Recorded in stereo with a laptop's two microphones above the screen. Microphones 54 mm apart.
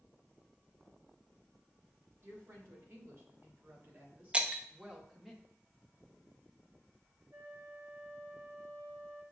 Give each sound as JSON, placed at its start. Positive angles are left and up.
{"t": 2.2, "sound": "a woman speaking", "side_deg": -55, "distance_m": 2.0}
{"t": 4.3, "sound": "breaking glass", "side_deg": -20, "distance_m": 0.5}
{"t": 7.3, "sound": "a flute", "side_deg": -45, "distance_m": 0.5}